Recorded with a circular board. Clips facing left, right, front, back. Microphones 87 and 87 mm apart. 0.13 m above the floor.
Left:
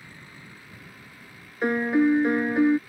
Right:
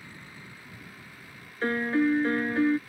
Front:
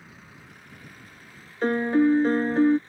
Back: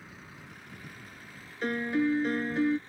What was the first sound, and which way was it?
A piano, 25° left.